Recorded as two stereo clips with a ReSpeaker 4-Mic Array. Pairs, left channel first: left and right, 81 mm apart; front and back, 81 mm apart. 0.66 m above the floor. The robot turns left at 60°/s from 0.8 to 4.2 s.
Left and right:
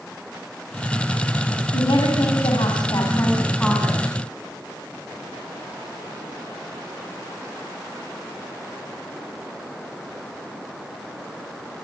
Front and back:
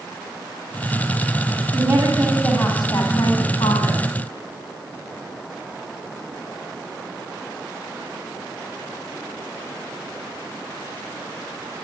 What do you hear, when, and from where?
1.7 s a woman speaking: 125° left, 5 m; by 4.0 s 10° right, 5 m